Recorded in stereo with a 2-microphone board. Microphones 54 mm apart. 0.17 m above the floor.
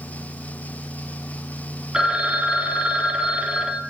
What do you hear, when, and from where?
1.9 s a phone ringing: 15° right (ahead or behind), 0.6 m